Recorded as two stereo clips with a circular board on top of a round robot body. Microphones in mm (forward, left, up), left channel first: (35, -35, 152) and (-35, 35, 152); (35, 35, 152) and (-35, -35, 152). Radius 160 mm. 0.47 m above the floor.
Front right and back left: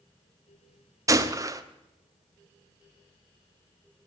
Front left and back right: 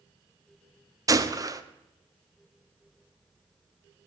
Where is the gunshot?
Straight behind, 1.4 m.